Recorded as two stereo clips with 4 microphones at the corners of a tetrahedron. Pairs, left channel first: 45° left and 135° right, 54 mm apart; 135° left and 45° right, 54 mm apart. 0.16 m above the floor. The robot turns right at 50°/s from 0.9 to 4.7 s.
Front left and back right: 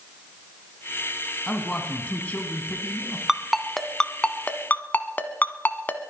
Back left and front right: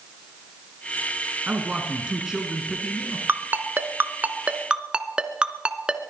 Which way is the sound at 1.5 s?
15° right.